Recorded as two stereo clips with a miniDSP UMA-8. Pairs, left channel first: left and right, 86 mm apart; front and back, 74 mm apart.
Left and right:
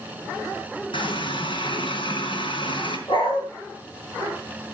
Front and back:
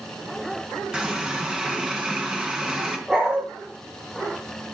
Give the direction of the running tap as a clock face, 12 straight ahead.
9 o'clock.